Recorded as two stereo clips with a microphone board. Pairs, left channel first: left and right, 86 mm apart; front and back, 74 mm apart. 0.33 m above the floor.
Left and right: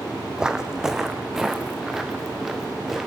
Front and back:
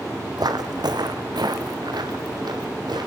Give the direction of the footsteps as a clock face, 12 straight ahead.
6 o'clock.